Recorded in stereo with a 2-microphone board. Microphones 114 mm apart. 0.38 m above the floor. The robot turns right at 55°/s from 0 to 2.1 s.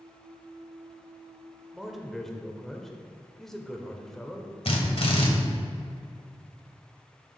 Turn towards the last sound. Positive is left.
turn(degrees=55)  # may be behind; listen again after turning